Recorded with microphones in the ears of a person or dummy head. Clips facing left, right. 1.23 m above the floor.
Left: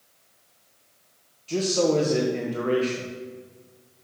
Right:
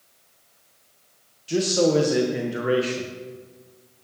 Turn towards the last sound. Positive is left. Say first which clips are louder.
# right 2 dB
turn(degrees=-5)  # may be behind; listen again after turning